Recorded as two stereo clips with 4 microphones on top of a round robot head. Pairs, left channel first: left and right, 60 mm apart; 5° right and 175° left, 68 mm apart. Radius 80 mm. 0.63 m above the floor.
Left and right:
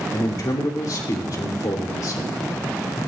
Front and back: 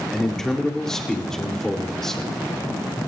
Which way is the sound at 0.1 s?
75° left.